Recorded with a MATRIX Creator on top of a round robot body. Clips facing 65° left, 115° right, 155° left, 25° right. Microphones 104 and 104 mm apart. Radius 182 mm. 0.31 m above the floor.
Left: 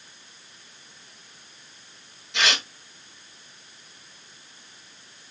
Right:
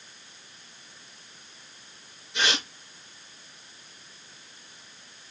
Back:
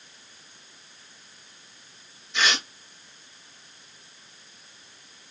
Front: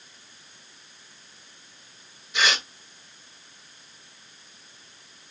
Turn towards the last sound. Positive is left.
turn(degrees=65)